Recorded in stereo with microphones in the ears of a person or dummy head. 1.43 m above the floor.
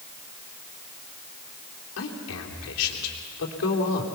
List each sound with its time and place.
2.0 s a man speaking: 85° left, 3.5 m